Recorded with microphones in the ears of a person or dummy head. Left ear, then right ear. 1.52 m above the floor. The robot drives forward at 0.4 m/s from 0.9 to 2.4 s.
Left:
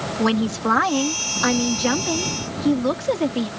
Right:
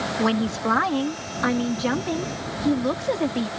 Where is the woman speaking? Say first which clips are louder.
Left 4 dB; 5° left (ahead or behind).